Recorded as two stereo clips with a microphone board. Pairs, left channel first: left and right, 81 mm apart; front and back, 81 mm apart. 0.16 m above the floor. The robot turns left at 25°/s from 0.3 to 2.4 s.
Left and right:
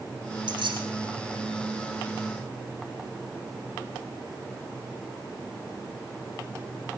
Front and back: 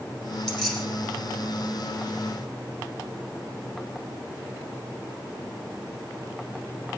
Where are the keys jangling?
80° right, 5 m; by 0.9 s 90° right, 5 m.